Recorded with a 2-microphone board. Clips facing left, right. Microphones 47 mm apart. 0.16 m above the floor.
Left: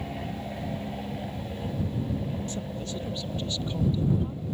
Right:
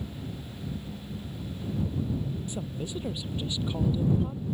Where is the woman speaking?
15° right (ahead or behind).